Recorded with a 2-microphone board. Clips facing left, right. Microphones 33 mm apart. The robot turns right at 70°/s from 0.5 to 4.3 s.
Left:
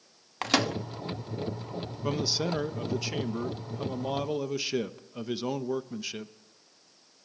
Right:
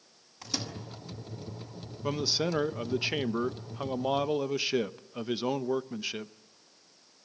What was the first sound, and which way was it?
A microwave, 65° left (ahead or behind).